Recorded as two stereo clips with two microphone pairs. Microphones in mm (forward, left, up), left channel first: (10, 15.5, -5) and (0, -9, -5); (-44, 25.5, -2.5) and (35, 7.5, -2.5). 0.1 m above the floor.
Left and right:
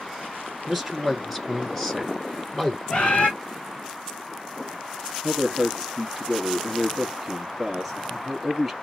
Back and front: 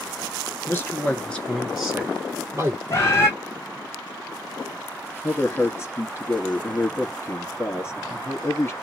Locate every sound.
0.7 s a man speaking: 160° left, 1.6 m; by 2.8 s 10° left, 1.7 m
2.9 s a bird: 110° left, 1.5 m
5.2 s a man speaking: 150° left, 1.9 m